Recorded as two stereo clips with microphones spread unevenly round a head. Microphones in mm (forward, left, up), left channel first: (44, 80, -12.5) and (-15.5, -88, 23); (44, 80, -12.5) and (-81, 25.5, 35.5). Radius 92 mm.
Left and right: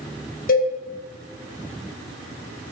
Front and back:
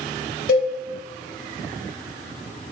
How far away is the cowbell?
About 0.7 m.